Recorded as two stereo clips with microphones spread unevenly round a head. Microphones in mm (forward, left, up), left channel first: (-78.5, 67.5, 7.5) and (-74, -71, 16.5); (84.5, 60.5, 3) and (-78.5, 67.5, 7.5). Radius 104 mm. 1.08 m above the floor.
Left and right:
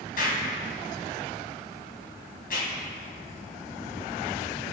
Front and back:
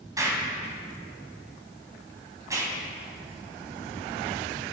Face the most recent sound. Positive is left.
turn(degrees=105)